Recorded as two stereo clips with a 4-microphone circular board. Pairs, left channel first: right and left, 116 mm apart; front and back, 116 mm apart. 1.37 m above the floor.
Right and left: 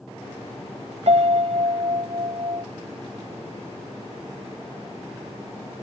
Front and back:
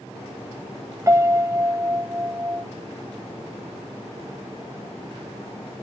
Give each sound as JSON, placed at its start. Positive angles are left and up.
{"t": 1.1, "sound": "a piano", "azimuth_deg": 115}